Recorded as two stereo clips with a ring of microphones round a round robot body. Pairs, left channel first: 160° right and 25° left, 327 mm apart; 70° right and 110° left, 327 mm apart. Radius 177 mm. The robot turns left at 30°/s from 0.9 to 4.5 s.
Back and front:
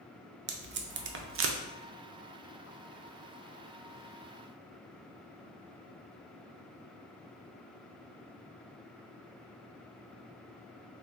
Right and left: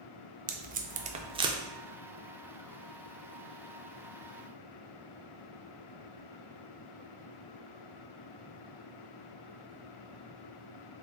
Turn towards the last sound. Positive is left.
turn(degrees=-50)